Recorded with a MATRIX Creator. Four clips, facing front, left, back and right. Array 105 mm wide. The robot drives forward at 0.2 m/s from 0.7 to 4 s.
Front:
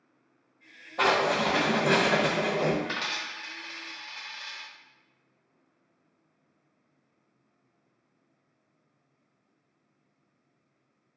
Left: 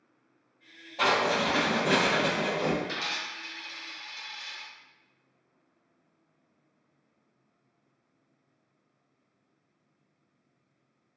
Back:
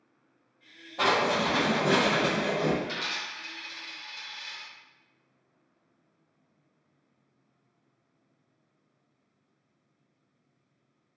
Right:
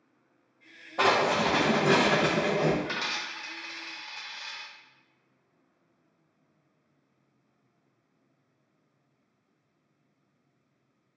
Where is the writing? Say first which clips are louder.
Right 2 dB, front 1 dB; 65° right, 1.2 m; by 2.8 s 85° right, 1.1 m.